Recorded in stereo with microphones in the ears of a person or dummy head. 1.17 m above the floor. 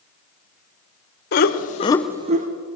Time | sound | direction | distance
1.3 | laughter | 55° left (ahead or behind) | 1.1 m